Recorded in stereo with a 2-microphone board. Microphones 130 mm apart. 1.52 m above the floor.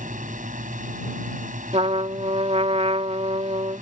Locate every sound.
0.0 s a drone: 90° right
1.7 s a trumpet: 55° right (ahead or behind)